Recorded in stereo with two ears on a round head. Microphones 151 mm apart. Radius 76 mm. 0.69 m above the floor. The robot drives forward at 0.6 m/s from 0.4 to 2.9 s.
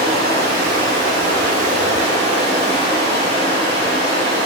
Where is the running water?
60° right (ahead or behind), 1.2 m; by 4.5 s 35° right (ahead or behind), 1.9 m.